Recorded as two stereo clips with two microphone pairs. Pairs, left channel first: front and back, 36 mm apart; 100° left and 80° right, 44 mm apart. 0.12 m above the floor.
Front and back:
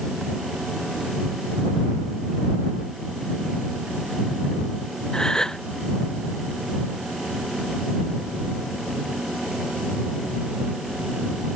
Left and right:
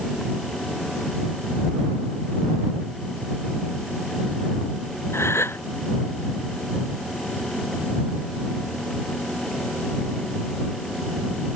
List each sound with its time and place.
5.1 s a gasp: 80° left